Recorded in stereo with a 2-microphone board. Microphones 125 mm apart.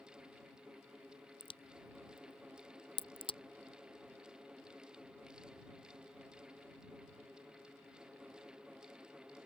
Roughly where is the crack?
Left.